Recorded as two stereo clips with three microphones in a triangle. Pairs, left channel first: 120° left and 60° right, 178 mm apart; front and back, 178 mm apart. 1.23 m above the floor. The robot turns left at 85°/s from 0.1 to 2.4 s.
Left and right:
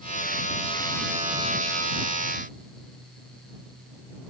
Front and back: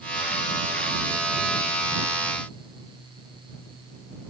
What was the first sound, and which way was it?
Only background noise.